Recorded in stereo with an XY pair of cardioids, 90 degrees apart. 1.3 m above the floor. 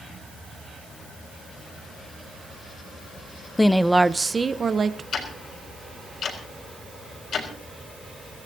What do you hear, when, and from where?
3.6 s a woman speaking: 15° left, 0.7 m; by 5.0 s 45° right, 1.5 m
5.1 s ticking: 65° left, 4 m